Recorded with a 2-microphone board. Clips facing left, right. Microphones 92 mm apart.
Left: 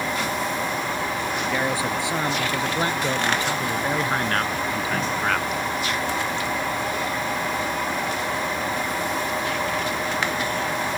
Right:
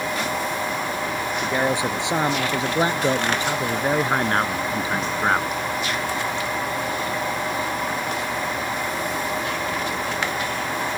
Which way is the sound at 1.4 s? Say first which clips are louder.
Right 4 dB; 20° right (ahead or behind).